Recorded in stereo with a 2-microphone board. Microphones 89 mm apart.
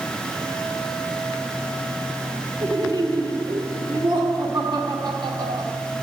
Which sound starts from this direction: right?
Laughter, at 2.6 s.